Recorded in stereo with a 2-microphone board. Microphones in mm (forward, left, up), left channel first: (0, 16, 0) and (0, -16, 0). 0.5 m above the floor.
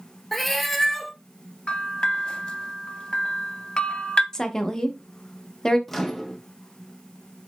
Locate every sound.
0.3 s a cat meowing: 5° left (ahead or behind), 0.6 m
1.7 s a bell: 30° left (ahead or behind), 0.5 m
4.3 s a woman speaking: 15° left (ahead or behind), 0.7 m
5.9 s a microwave: 10° left (ahead or behind), 0.6 m